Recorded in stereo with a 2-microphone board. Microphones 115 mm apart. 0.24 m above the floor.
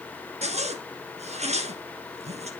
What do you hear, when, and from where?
0.4 s a zipper: 70° right (ahead or behind), 1.2 m